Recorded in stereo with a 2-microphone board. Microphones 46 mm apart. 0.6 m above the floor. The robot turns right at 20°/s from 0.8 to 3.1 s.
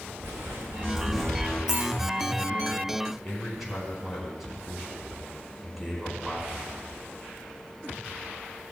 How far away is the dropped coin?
About 4 m.